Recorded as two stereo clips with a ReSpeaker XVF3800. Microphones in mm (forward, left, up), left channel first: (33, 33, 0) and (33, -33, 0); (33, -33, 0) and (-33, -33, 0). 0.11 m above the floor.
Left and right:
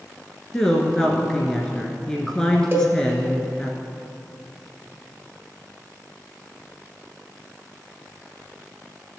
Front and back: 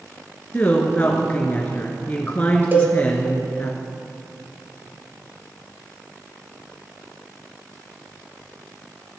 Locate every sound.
0.5 s a woman speaking: 25° left, 1.5 m
2.7 s a cowbell: 130° right, 1.9 m